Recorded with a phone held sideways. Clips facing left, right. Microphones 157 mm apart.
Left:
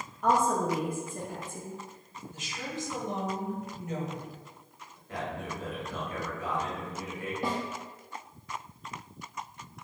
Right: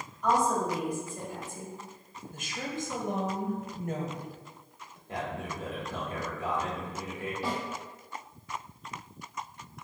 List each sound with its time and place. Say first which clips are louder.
0.2 s a woman speaking: left 1 dB; 55° left (ahead or behind), 0.8 m
2.3 s a woman speaking: right 2 dB; 55° right (ahead or behind), 0.8 m
5.1 s a man speaking: even; 25° right (ahead or behind), 1.6 m
7.4 s a snare drum: left 2 dB; 55° left (ahead or behind), 1.1 m